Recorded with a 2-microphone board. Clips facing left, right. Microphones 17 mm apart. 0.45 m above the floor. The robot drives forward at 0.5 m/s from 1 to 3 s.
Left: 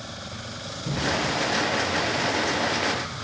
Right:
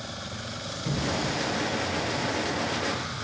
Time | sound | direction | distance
0.8 | a thud | 35° right (ahead or behind) | 3.5 m